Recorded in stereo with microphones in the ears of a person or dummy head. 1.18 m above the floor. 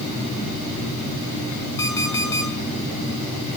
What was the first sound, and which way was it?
An alarm clock, 15° left (ahead or behind).